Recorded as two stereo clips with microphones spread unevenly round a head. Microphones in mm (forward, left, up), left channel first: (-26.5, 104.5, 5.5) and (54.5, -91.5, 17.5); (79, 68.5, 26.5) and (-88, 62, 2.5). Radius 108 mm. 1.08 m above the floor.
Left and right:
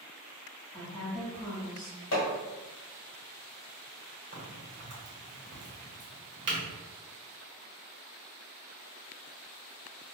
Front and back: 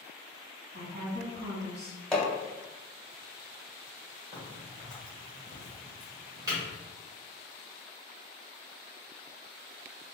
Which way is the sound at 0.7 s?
165° right.